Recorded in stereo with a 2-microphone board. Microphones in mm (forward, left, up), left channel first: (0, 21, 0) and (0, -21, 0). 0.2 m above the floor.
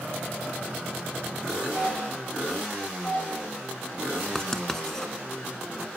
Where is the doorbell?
35° left (ahead or behind), 3 m.